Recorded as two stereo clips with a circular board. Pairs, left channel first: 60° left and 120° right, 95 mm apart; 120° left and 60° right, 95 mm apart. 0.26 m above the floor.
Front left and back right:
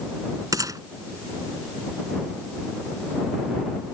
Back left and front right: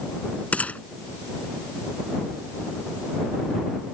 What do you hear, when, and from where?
0.5 s a gunshot: 165° right